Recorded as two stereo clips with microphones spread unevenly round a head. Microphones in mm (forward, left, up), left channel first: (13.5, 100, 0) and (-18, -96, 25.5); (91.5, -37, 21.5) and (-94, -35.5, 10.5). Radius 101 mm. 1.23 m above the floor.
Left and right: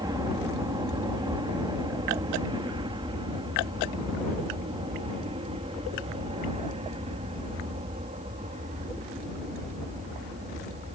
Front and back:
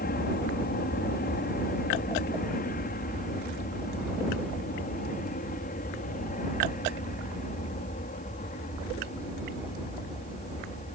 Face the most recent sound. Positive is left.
turn(degrees=-45)